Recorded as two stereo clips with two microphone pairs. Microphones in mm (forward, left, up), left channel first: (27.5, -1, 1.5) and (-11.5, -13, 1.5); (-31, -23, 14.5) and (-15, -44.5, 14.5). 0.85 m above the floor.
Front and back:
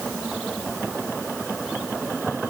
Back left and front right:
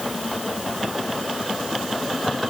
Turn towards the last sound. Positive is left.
No sound to turn to.